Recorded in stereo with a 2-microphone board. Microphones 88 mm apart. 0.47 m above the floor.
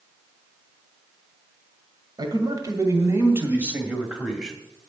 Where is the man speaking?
55° right (ahead or behind), 2 m; by 4.6 s centre (ahead or behind), 2.5 m.